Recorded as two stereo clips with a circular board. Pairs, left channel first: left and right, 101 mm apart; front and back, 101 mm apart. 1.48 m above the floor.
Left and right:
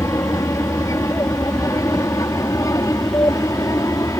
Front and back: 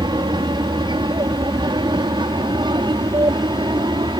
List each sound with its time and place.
0.0 s an aircraft: 145° left